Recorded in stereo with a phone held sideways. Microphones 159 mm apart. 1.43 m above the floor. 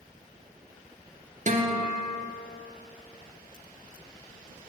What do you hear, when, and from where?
1.5 s a guitar: 50° right (ahead or behind), 0.7 m